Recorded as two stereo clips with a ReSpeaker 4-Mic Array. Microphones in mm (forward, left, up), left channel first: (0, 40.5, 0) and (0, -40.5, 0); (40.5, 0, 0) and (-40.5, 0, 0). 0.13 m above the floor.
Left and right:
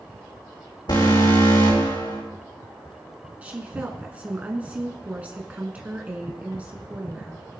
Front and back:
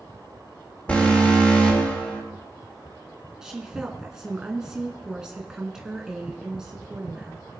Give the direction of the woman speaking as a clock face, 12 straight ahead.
4 o'clock.